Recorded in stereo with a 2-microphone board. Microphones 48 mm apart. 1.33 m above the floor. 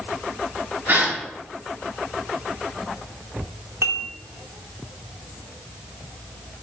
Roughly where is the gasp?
Right.